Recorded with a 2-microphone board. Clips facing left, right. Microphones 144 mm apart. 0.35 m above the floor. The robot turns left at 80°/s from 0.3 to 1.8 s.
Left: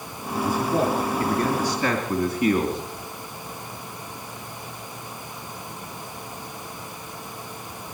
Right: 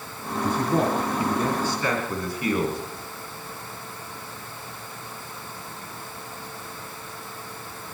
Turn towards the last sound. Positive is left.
turn(degrees=150)